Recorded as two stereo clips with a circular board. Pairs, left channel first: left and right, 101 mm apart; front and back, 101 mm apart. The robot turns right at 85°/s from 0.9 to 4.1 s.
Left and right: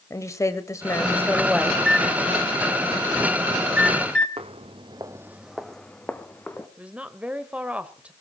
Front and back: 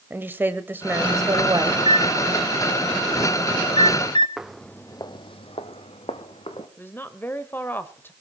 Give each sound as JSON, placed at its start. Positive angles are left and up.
{"t": 0.1, "sound": "a woman speaking", "azimuth_deg": 125, "distance_m": 1.2}
{"t": 1.7, "sound": "a microwave", "azimuth_deg": 170, "distance_m": 1.5}
{"t": 4.4, "sound": "footsteps", "azimuth_deg": -95, "distance_m": 0.8}
{"t": 6.8, "sound": "a woman speaking", "azimuth_deg": -30, "distance_m": 1.0}